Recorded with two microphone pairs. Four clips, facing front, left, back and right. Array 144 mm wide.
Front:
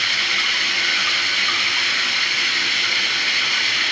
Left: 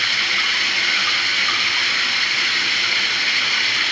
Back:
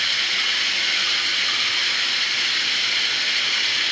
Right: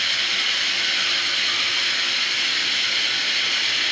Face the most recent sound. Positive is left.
turn(degrees=60)